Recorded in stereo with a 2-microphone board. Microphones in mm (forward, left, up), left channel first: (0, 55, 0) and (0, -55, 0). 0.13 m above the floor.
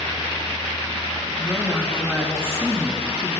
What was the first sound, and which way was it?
A woman speaking, 20° left (ahead or behind).